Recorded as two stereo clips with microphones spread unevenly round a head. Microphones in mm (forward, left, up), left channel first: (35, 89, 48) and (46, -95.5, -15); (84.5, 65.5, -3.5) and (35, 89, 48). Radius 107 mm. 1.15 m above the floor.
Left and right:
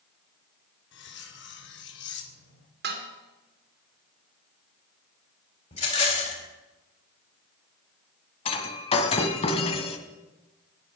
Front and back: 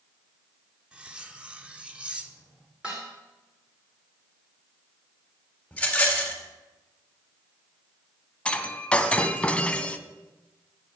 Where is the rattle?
45° left, 4.5 m.